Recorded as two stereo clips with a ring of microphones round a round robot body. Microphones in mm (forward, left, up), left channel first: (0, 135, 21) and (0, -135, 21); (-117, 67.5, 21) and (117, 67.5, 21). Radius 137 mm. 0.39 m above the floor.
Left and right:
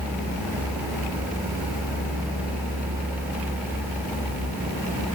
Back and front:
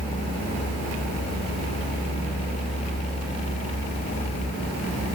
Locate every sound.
Only background noise.